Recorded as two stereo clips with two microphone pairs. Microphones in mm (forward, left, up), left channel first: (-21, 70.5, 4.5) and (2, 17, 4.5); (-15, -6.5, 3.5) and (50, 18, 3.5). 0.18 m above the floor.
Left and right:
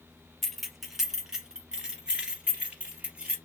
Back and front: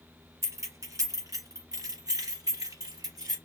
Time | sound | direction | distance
0.4 | keys jangling | 30° left | 1.1 m